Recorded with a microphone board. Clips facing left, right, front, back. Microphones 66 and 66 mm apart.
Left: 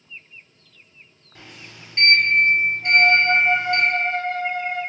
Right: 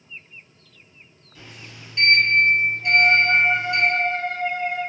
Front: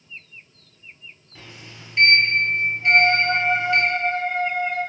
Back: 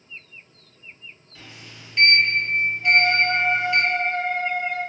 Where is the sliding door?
60° left, 1.1 m.